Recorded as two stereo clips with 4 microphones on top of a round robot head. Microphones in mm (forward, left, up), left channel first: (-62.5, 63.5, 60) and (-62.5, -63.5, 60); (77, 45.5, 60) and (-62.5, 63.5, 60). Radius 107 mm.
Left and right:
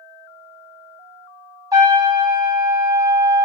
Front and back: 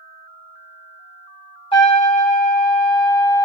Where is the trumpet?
40° right, 1.8 m.